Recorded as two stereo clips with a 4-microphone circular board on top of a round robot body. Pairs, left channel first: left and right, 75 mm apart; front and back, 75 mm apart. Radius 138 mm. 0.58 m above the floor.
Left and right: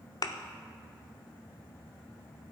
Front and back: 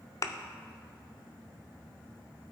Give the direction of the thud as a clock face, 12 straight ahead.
10 o'clock.